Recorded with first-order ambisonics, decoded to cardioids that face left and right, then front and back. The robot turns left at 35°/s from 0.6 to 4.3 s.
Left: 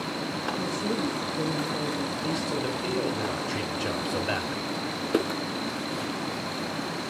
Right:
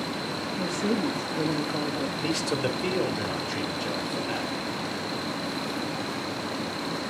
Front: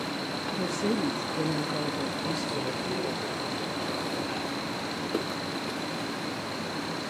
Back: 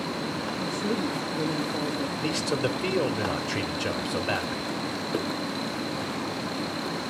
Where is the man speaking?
135° right, 1.5 m; by 4.7 s 155° left, 1.5 m.